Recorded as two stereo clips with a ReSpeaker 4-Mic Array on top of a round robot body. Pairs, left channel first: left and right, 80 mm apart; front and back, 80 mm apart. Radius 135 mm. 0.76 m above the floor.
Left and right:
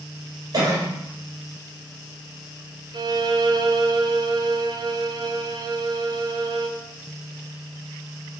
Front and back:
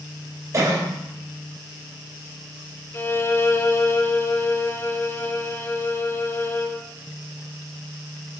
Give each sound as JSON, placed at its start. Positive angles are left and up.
{"t": 0.5, "sound": "a cough", "azimuth_deg": -130, "distance_m": 4.0}
{"t": 2.9, "sound": "a violin", "azimuth_deg": -60, "distance_m": 1.0}